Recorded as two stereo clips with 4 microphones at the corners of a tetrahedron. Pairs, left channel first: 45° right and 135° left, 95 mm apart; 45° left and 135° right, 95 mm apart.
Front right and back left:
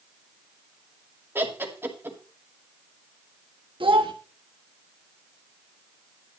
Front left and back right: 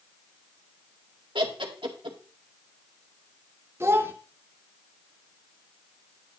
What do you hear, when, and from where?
1.4 s laughter: 160° right, 2 m
3.8 s a child speaking: 160° left, 1.3 m